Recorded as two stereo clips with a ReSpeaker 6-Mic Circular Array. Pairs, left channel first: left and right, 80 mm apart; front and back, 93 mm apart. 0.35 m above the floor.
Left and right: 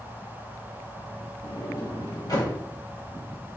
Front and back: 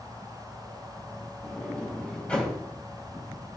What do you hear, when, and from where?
1.4 s a sliding door: 70° left, 2.5 m